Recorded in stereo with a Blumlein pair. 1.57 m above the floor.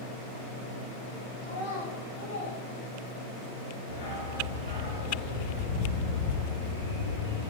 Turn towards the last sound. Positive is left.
turn(degrees=55)